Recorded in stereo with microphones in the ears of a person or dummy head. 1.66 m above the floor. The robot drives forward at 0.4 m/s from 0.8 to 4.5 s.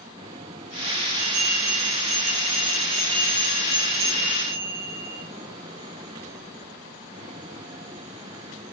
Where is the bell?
45° right (ahead or behind), 1.5 m; by 5.2 s 25° right (ahead or behind), 2.5 m.